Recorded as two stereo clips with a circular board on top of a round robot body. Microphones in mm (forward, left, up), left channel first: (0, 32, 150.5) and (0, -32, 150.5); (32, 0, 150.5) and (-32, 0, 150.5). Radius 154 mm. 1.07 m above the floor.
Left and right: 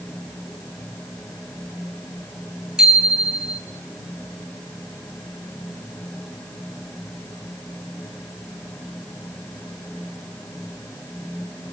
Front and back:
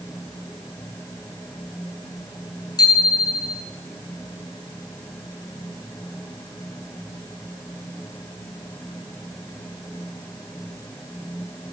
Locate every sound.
2.8 s a bicycle bell: 10° right, 9.5 m